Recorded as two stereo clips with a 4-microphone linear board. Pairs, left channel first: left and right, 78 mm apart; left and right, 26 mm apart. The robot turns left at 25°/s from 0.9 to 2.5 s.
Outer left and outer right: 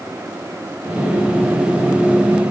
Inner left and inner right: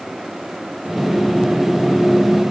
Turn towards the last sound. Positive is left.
No sound to turn to.